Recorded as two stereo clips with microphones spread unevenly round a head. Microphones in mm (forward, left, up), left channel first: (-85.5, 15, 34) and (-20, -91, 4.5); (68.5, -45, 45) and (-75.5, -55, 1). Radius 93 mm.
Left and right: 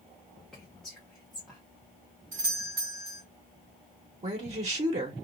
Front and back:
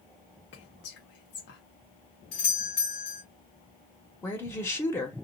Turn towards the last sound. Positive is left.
turn(degrees=-75)